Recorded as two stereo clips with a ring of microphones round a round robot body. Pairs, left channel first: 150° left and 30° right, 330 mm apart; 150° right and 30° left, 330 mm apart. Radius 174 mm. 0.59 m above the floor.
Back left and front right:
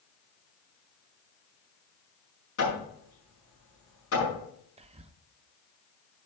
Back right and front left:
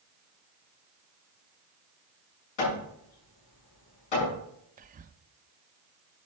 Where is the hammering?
160° right, 6 m.